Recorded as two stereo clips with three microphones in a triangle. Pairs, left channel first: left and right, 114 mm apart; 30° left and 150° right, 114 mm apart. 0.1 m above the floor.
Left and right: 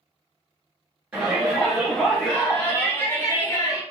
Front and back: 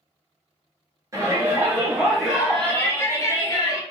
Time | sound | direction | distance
1.1 | a shout | 155° right | 1.2 m